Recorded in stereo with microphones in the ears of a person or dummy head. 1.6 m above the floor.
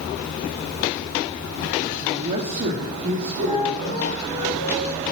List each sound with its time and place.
2.0 s a man speaking: 20° right (ahead or behind), 1.2 m; by 4.1 s 55° right (ahead or behind), 3.5 m
3.4 s a flute: 25° left (ahead or behind), 3 m